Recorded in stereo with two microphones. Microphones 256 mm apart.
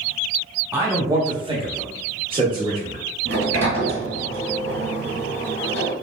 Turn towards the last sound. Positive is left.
turn(degrees=-50)  # may be behind; listen again after turning